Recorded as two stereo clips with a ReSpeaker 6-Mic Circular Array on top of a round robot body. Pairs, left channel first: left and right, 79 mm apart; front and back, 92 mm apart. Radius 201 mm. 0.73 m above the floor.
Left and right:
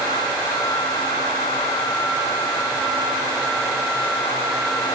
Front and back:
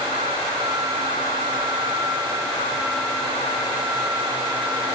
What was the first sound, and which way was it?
Only background noise.